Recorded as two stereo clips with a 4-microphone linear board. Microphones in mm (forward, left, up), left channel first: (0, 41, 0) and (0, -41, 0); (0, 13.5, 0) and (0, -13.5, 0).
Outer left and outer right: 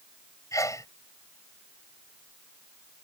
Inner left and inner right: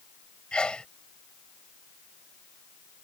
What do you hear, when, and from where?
0.5 s a sneeze: 40° left (ahead or behind)